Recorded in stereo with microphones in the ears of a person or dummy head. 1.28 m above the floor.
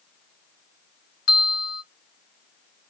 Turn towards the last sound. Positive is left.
turn(degrees=55)  # may be behind; listen again after turning